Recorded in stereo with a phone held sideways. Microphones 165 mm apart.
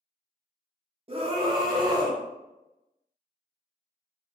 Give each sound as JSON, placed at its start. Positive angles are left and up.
{"t": 1.1, "sound": "a scream", "side_deg": -35, "distance_m": 0.7}